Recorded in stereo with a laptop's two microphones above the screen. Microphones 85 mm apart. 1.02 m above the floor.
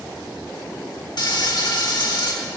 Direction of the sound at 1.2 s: 60° left (ahead or behind).